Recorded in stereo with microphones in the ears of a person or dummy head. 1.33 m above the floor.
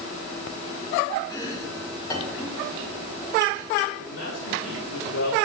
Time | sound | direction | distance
1.3 | chopping | 20° left (ahead or behind) | 3 m
4.0 | a man speaking | 80° left | 3.5 m